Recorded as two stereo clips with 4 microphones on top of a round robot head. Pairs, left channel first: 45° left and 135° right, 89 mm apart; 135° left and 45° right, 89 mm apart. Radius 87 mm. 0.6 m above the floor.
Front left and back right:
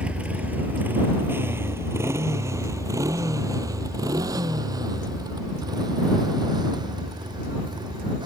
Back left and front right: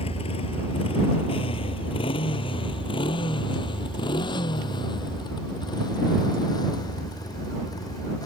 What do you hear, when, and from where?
0.0 s a motorcycle: 145° left; by 8.3 s 175° right